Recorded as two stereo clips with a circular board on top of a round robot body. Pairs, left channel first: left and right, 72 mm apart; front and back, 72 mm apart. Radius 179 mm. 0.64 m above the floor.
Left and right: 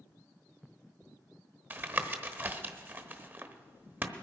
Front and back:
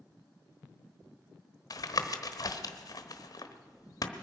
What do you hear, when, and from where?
1.7 s tapping: 30° right, 1.1 m